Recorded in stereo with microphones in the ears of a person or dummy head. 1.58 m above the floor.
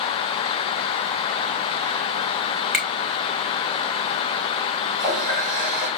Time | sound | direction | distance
2.7 | a finger snap | 5° right (ahead or behind) | 1.0 m
5.0 | a running tap | 45° right (ahead or behind) | 3.5 m